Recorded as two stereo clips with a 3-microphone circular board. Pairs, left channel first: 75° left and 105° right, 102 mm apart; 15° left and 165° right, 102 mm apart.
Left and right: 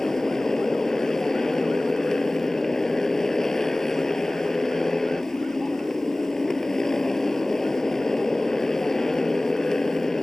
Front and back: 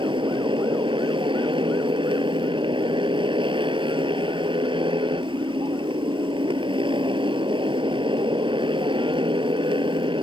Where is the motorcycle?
160° left.